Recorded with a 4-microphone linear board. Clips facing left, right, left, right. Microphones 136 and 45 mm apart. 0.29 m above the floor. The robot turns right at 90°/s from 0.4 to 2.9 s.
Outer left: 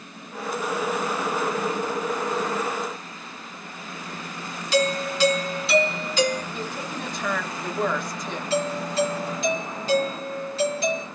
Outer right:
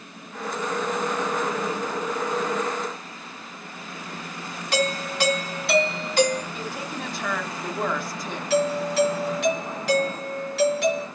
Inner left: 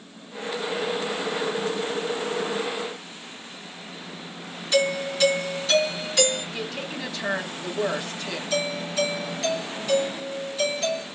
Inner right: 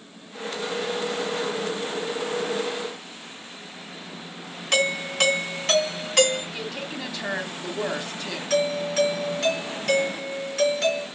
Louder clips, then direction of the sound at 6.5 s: Outer left 1 dB, inner left 1 dB; centre (ahead or behind).